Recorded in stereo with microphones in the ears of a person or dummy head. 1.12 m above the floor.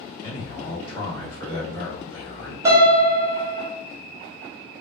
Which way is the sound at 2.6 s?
15° right (ahead or behind).